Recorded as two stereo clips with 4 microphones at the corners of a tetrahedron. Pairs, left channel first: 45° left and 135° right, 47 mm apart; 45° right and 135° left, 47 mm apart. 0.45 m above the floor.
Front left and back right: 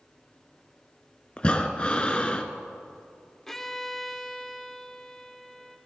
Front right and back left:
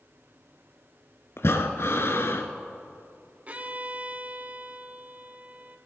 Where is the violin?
125° left, 0.8 m.